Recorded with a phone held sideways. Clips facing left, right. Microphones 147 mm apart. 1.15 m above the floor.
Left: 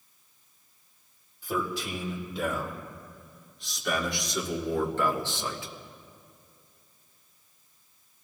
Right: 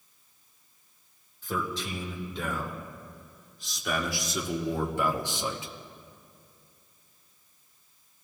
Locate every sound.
1.4 s a man speaking: 10° left (ahead or behind), 3.5 m; by 5.7 s 20° right (ahead or behind), 1.7 m